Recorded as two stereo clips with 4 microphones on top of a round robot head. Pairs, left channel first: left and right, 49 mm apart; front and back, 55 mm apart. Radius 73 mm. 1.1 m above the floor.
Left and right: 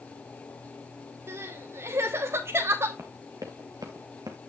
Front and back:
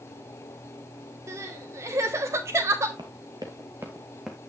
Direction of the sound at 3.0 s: 155° right.